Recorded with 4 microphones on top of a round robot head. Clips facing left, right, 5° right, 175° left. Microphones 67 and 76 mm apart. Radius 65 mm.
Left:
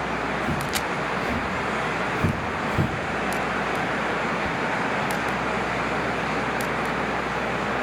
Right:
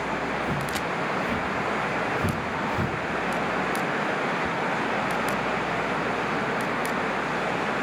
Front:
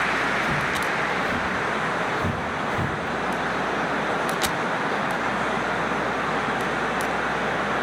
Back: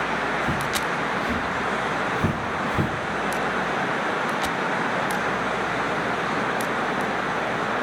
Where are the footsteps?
155° left, 3.5 m; by 2.9 s 135° left, 1.6 m.